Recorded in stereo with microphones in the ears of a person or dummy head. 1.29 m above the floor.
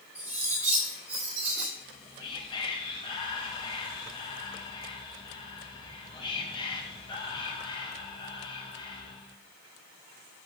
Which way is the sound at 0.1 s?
10° right (ahead or behind).